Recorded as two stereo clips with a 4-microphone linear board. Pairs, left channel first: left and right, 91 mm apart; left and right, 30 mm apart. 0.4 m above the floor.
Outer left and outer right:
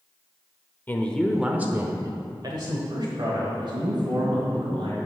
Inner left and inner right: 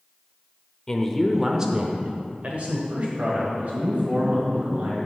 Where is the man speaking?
20° left (ahead or behind), 0.9 m; by 5.0 s 70° right (ahead or behind), 3 m.